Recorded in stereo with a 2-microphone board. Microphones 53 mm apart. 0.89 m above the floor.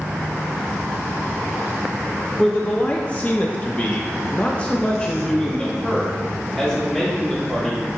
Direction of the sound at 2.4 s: 20° left (ahead or behind).